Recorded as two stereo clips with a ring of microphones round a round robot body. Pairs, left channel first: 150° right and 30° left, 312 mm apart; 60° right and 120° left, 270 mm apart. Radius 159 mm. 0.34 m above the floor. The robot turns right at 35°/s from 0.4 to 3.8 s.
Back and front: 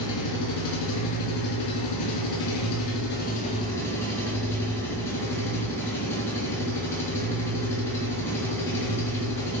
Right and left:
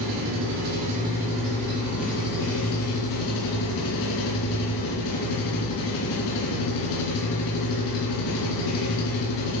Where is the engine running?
175° left, 2.5 m; by 9.6 s 65° right, 2.5 m.